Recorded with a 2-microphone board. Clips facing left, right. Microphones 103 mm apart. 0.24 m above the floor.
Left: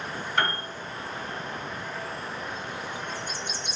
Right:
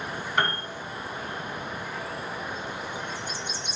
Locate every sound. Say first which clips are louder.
0.4 s a piano: even; 5° right (ahead or behind), 1.5 m